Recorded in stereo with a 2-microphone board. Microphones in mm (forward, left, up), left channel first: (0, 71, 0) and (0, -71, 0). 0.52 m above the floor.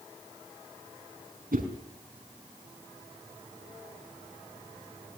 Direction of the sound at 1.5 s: 80° right.